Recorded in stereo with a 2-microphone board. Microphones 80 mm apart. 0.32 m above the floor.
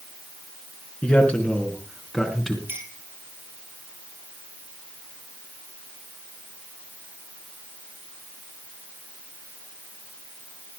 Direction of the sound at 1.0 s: 20° left (ahead or behind).